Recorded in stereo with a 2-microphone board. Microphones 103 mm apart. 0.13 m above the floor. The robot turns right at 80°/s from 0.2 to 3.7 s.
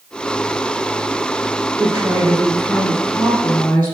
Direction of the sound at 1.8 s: 25° right (ahead or behind).